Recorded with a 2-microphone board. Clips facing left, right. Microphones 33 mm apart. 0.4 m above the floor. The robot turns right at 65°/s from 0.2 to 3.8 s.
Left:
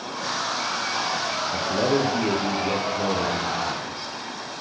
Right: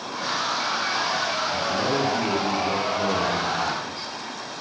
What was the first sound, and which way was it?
A man speaking, 75° left.